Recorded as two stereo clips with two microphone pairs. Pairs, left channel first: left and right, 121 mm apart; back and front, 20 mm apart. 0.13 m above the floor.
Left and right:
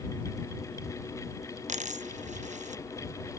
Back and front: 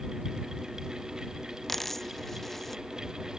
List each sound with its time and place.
1.7 s a dropped coin: 100° right